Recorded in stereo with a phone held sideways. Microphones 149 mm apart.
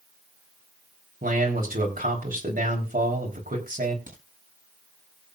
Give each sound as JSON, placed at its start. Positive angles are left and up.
{"t": 1.2, "sound": "a man speaking", "side_deg": -75, "distance_m": 4.0}
{"t": 4.1, "sound": "a crack", "side_deg": -60, "distance_m": 9.0}